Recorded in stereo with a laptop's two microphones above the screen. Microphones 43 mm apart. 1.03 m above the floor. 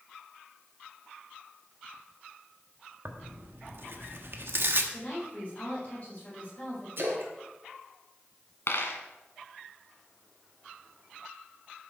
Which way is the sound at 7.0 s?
55° right (ahead or behind).